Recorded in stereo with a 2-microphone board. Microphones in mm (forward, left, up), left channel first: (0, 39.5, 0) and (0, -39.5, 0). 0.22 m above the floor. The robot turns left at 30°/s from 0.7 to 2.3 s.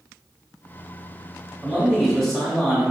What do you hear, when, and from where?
1.6 s a man speaking: 5° right (ahead or behind), 1.4 m; by 2.9 s 5° left (ahead or behind), 1.4 m